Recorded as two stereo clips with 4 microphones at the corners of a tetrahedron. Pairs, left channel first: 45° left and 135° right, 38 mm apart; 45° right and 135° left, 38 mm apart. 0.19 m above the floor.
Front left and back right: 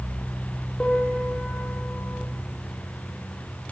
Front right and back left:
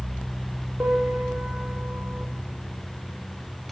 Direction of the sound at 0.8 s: 115° left.